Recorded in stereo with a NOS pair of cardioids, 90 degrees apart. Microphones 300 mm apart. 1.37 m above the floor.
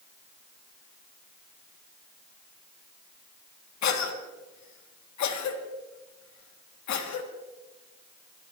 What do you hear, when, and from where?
3.8 s a cough: 65° left, 3.5 m